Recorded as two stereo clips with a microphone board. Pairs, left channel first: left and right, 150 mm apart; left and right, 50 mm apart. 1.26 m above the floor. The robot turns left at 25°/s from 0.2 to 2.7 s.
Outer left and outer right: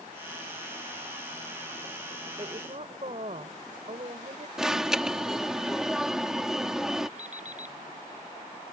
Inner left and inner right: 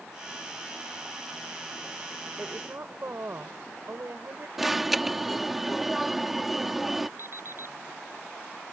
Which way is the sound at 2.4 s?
40° right (ahead or behind).